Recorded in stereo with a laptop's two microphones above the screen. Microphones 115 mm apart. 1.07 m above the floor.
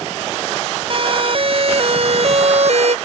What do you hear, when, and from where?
0.9 s a siren: 45° right (ahead or behind); by 3.0 s 65° right (ahead or behind)